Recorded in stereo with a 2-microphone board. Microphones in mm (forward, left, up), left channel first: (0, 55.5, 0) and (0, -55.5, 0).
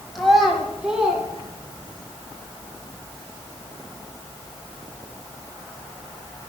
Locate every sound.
0.1 s a child speaking: centre (ahead or behind), 1.3 m; by 2.1 s 10° right (ahead or behind), 3.5 m